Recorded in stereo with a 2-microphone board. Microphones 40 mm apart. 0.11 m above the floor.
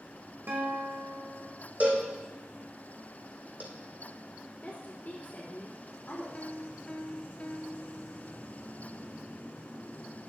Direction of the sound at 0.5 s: 65° right (ahead or behind).